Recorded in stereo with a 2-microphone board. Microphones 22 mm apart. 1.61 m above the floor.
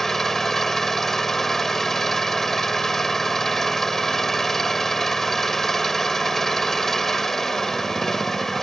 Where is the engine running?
10° left (ahead or behind).